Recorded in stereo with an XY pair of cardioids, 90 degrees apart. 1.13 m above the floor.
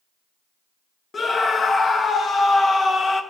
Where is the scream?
45° left, 1.2 m.